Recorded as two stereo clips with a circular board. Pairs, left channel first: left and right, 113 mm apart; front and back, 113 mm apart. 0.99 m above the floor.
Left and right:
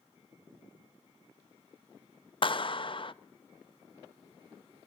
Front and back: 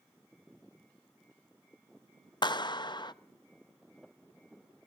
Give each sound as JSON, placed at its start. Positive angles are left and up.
{"t": 2.4, "sound": "a clap", "azimuth_deg": 50, "distance_m": 0.5}